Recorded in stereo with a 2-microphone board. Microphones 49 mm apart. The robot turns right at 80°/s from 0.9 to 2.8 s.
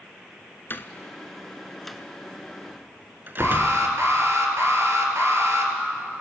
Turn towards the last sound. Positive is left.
turn(degrees=-60)  # may be behind; listen again after turning